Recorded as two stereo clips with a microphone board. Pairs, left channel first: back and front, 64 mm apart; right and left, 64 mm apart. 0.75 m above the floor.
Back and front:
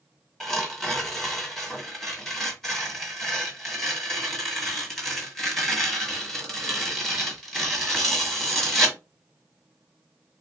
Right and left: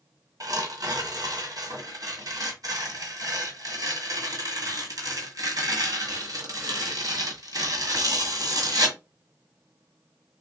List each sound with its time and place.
0.4 s tearing paper: 100° left, 1.5 m